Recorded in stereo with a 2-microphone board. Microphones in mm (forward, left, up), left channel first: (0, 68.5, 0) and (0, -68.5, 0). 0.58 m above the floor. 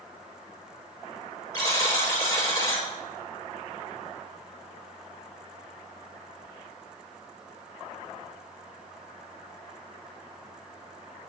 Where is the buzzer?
25° left (ahead or behind), 2.5 m.